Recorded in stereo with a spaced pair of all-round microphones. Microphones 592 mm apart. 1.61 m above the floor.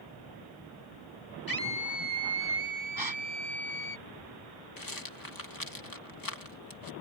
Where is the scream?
35° left (ahead or behind); by 4.0 s 55° left (ahead or behind).